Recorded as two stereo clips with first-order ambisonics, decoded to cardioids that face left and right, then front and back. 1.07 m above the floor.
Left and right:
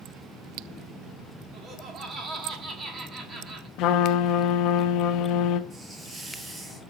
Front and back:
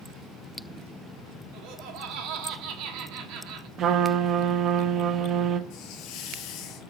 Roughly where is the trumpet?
Behind left.